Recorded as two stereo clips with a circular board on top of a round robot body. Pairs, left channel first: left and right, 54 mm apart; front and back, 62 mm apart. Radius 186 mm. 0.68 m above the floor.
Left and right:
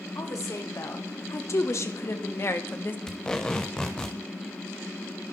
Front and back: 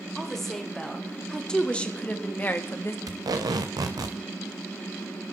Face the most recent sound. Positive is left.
turn(degrees=165)